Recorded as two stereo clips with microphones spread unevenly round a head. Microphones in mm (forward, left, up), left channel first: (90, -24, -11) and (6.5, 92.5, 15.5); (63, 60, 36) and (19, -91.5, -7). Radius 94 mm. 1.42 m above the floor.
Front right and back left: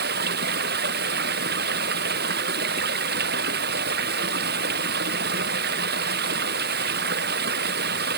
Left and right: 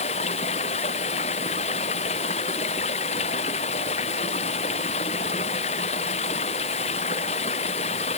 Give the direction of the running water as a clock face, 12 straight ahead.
8 o'clock.